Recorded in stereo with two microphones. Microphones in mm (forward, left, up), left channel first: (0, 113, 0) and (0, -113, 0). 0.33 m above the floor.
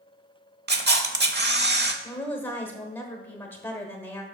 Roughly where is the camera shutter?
Right.